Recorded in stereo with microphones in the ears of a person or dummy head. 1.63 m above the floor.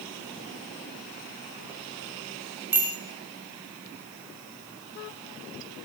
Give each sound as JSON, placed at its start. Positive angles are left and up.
{"t": 2.7, "sound": "a bicycle bell", "side_deg": -10, "distance_m": 3.5}